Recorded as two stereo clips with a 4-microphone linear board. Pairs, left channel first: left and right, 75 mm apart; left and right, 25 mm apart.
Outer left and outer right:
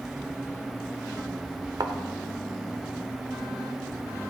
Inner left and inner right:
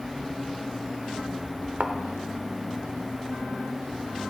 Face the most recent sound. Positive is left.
turn(degrees=-55)  # may be behind; listen again after turning